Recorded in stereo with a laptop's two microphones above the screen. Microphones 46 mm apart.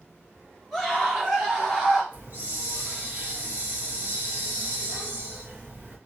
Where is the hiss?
45° right (ahead or behind), 0.9 m.